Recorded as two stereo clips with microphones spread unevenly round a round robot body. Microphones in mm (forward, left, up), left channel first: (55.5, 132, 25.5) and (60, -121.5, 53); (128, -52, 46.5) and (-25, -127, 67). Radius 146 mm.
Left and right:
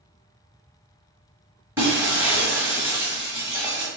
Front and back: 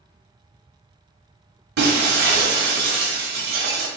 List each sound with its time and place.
1.8 s breaking glass: 170° right, 0.8 m